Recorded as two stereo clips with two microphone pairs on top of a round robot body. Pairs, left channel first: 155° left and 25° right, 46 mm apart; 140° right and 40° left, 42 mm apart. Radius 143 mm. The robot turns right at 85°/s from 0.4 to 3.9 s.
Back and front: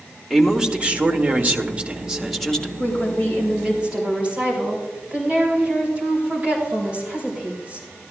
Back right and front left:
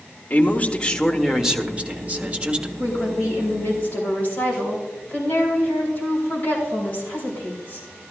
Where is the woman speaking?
Straight behind, 5 m; by 7.9 s 85° right, 5 m.